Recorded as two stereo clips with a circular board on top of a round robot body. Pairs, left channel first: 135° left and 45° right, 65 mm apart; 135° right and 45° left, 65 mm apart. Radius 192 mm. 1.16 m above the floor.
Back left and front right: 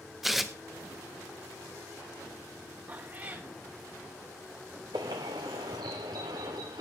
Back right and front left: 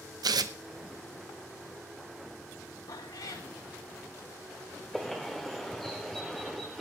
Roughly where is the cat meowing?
Right.